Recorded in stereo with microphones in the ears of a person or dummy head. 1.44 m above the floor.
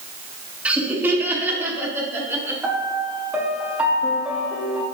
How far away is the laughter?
About 1.6 m.